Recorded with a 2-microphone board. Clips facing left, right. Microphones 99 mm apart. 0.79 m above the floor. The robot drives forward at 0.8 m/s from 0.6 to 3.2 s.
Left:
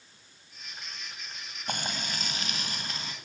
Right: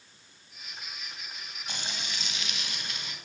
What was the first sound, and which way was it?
Frying, 50° left (ahead or behind).